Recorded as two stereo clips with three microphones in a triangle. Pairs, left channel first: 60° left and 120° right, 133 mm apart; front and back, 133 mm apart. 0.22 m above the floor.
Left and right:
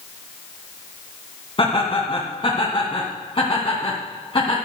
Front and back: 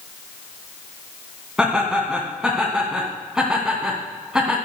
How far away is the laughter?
About 2 m.